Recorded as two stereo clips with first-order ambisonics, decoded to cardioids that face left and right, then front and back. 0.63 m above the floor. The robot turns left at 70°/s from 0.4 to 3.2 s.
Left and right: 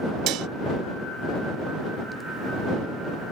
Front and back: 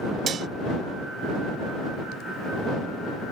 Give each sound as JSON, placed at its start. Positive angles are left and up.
{"t": 0.3, "sound": "dishes clattering", "azimuth_deg": -120}